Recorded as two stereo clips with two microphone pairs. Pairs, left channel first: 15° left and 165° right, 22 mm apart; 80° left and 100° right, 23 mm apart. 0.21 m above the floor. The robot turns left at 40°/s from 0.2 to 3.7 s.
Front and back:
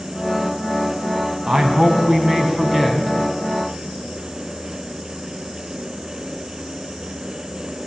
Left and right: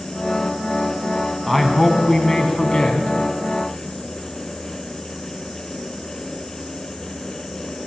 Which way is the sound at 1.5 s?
175° left.